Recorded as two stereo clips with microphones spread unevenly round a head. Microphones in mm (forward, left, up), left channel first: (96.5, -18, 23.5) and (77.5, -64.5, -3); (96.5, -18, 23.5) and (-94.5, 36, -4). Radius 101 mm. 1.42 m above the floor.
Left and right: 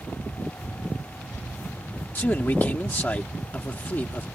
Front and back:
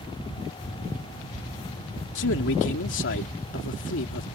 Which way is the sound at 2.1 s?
15° left.